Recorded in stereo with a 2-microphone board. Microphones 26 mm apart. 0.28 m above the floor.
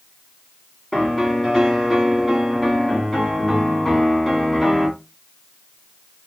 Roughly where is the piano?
Centre.